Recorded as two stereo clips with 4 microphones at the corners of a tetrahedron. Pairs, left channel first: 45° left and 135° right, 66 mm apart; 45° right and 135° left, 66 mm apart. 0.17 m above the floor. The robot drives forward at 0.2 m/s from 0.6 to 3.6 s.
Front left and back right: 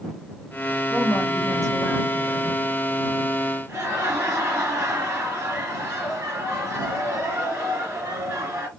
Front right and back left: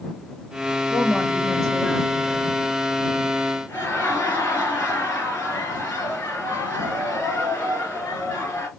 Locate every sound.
0.9 s a woman speaking: 120° right, 2.5 m; by 2.6 s 130° right, 2.5 m
3.7 s laughter: 100° right, 2.5 m